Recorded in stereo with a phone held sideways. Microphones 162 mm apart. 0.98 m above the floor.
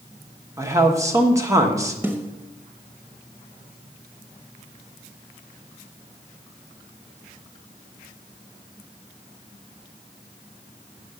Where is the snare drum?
15° right (ahead or behind), 1.1 m.